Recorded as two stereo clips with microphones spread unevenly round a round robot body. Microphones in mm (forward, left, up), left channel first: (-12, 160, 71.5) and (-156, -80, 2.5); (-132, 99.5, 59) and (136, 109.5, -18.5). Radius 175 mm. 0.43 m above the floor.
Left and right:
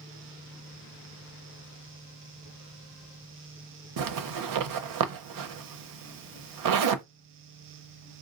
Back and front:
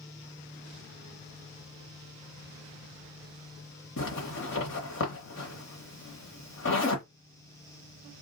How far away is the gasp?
No gasp in this recording.